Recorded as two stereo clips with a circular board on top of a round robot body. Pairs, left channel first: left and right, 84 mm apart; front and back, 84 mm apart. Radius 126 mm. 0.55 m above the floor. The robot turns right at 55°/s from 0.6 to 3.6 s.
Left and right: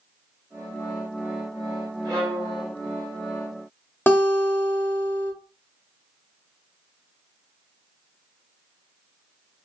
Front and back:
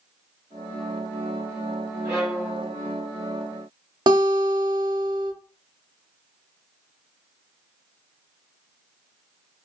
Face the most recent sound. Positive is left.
turn(degrees=155)